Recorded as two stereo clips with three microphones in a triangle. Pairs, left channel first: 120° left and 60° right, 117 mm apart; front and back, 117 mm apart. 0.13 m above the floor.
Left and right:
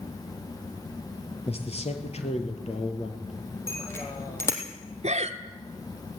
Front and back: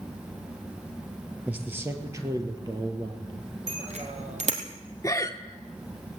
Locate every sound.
1.5 s a man speaking: 105° left, 3 m; by 3.5 s 140° left, 4.5 m
3.7 s a bicycle bell: 175° right, 3.5 m
5.0 s breathing: 65° right, 1.2 m